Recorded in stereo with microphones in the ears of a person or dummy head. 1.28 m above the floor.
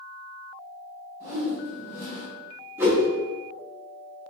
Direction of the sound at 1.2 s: 15° right (ahead or behind).